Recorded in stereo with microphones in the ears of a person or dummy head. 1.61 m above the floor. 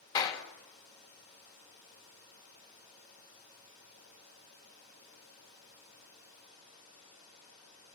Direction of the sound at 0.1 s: 25° left (ahead or behind).